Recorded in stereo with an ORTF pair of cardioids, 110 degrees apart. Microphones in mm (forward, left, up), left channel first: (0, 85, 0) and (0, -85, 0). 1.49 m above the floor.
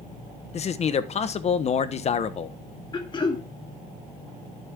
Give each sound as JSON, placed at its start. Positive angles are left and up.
{"t": 0.5, "sound": "a man speaking", "azimuth_deg": 40, "distance_m": 1.2}
{"t": 2.9, "sound": "throat clearing", "azimuth_deg": 30, "distance_m": 2.0}